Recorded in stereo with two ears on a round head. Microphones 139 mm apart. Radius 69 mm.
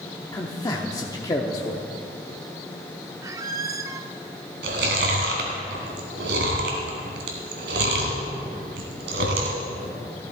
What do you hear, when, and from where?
0.3 s a man speaking: 25° left (ahead or behind), 0.8 m
3.2 s a squeak: 20° right (ahead or behind), 0.6 m
4.6 s chewing: 80° right, 2.5 m